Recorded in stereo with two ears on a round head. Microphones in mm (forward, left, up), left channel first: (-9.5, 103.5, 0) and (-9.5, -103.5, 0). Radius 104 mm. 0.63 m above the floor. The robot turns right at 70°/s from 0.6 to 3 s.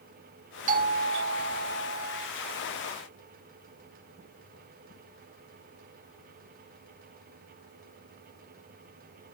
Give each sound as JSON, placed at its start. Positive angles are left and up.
{"t": 0.7, "sound": "a doorbell", "azimuth_deg": -140}